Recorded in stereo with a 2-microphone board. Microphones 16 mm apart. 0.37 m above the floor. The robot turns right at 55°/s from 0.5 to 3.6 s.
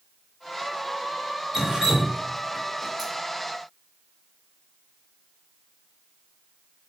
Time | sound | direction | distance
1.5 | dripping | 40° right (ahead or behind) | 1.7 m